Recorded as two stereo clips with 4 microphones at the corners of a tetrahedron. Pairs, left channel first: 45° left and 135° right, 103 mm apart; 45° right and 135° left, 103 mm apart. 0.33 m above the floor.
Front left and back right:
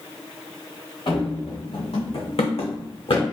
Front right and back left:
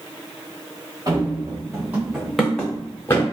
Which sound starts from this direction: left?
Running footsteps, at 1.1 s.